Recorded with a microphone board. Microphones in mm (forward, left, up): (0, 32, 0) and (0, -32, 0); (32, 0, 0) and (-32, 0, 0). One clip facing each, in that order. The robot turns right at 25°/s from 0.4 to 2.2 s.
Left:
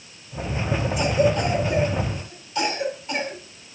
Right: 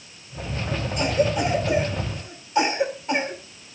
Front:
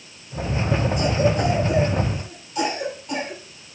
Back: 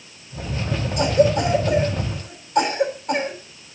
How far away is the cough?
About 5 m.